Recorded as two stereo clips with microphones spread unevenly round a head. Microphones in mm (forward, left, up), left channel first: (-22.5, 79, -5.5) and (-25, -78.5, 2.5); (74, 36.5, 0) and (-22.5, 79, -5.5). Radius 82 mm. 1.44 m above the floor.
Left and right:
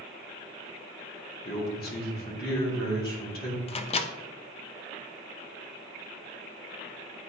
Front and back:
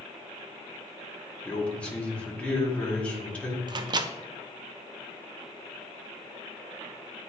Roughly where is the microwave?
Behind left.